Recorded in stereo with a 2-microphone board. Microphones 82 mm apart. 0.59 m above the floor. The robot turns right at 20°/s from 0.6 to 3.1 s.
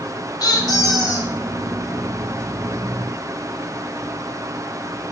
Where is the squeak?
65° left (ahead or behind), 1.5 m; by 1.3 s 50° left (ahead or behind), 1.5 m.